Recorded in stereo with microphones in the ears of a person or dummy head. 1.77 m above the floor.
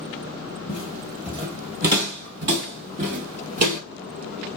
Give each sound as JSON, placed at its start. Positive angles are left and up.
{"t": 0.7, "sound": "footsteps", "side_deg": 25, "distance_m": 1.9}